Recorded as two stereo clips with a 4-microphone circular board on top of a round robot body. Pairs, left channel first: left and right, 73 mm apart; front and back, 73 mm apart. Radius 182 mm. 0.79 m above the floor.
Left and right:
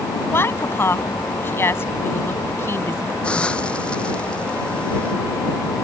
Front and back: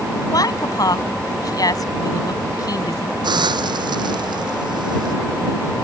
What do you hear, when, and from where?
0.3 s a woman speaking: 35° left
3.2 s a hiss: 165° left